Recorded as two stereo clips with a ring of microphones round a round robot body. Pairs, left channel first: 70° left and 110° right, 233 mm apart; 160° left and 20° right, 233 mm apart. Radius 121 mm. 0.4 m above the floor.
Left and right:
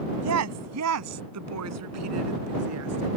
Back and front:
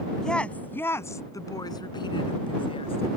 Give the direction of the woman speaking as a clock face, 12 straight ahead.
4 o'clock.